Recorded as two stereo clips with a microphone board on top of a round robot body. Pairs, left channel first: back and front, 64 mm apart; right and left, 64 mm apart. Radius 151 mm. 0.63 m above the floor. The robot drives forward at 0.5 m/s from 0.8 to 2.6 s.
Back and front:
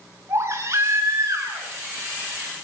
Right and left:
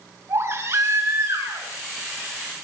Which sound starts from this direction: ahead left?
A baby crying, at 0.3 s.